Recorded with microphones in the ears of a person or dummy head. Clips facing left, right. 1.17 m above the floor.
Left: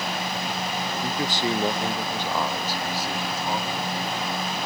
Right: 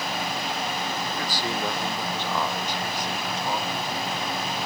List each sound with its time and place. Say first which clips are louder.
1.0 s a man speaking: left 3 dB; 30° left (ahead or behind); by 4.1 s 5° left (ahead or behind)